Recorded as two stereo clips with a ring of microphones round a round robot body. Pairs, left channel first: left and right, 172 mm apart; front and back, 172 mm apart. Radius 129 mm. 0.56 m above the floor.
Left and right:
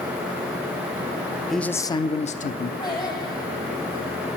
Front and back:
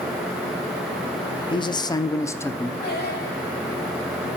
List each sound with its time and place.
1.5 s a man speaking: straight ahead, 0.6 m; by 2.7 s 75° left, 0.9 m
2.8 s singing: 25° left, 7.5 m